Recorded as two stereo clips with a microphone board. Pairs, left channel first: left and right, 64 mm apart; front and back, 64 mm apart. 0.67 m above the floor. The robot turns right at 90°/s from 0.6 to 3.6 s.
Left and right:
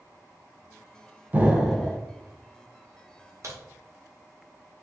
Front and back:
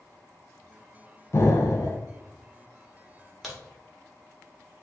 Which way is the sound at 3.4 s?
95° right.